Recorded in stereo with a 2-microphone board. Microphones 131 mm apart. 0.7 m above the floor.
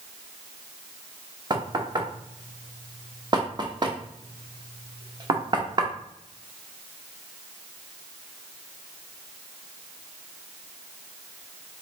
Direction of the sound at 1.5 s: 30° right (ahead or behind).